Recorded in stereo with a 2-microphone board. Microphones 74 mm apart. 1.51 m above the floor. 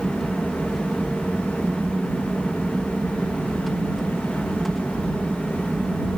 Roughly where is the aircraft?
Centre.